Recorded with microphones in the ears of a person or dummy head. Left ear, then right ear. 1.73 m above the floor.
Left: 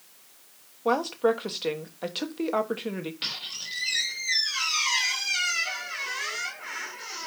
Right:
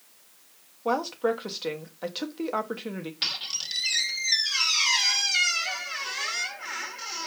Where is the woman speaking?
Centre (ahead or behind), 1.0 m.